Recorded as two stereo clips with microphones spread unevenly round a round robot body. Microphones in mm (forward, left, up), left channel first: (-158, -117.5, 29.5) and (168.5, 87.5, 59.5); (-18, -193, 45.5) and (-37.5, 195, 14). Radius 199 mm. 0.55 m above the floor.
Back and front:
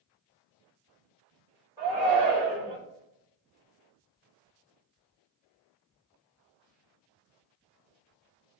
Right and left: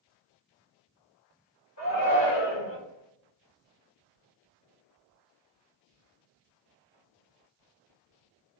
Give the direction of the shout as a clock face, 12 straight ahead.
2 o'clock.